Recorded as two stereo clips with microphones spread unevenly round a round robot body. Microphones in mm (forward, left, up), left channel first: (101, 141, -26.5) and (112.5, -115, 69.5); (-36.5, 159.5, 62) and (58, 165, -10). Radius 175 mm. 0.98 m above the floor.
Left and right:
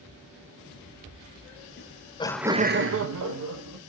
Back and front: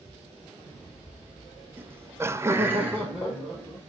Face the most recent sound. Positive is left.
turn(degrees=-75)